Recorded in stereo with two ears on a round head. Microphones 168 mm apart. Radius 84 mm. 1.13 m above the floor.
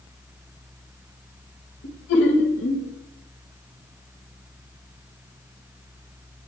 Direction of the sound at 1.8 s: 70° left (ahead or behind).